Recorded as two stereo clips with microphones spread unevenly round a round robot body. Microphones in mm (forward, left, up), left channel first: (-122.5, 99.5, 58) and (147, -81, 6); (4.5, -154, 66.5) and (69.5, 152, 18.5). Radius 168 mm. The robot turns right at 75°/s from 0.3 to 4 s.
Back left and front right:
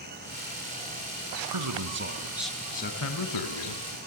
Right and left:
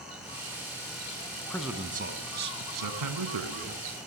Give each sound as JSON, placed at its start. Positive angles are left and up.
{"t": 1.5, "sound": "a man speaking", "azimuth_deg": -20, "distance_m": 2.5}